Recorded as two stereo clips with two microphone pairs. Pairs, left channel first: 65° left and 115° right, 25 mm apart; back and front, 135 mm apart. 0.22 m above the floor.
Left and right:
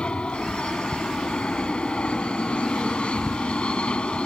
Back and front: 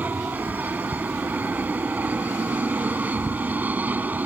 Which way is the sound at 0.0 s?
75° left.